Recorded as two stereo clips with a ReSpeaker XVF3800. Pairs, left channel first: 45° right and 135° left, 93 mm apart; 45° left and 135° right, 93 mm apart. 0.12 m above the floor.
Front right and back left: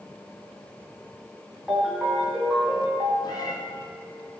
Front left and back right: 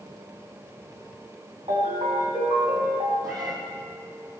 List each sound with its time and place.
1.7 s a ringtone: 140° right, 5 m
3.2 s a cat meowing: 90° right, 2.5 m